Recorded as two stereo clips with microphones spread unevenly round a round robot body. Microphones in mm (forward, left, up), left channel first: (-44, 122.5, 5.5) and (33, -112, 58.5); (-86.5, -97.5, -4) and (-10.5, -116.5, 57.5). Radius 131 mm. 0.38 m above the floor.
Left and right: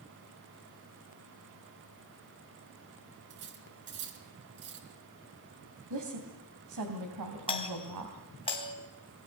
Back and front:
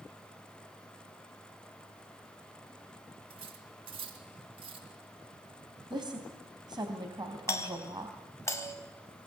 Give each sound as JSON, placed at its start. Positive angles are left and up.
{"t": 3.3, "sound": "cutlery clinking", "azimuth_deg": -20, "distance_m": 3.0}
{"t": 5.9, "sound": "a woman speaking", "azimuth_deg": -60, "distance_m": 3.0}
{"t": 7.5, "sound": "a doorbell", "azimuth_deg": 170, "distance_m": 3.5}